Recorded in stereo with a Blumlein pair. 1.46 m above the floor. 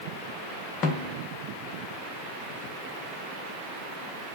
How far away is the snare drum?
About 0.7 m.